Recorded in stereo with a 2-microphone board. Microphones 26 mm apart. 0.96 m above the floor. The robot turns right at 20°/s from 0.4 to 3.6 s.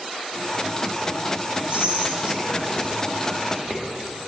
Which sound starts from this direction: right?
Whispering, at 1.7 s.